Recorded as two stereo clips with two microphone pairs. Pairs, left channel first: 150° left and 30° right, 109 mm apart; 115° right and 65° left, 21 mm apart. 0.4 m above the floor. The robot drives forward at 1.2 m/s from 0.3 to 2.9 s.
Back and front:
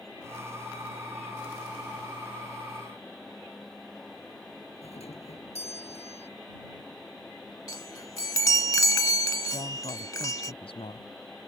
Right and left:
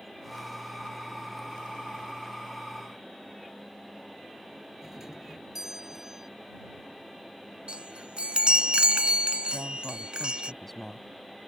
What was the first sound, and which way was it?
A doorbell, 135° left.